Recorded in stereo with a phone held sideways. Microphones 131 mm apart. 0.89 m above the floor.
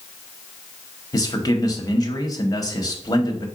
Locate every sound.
1.1 s a man speaking: 30° left (ahead or behind), 0.6 m